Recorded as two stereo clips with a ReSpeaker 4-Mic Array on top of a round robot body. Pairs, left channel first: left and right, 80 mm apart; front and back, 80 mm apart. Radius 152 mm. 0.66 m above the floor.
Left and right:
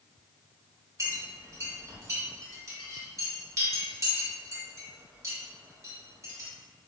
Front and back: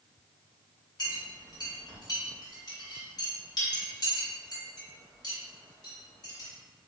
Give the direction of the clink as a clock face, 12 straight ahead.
1 o'clock.